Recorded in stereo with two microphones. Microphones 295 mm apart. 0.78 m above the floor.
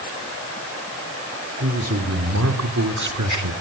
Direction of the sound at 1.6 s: 45° right (ahead or behind).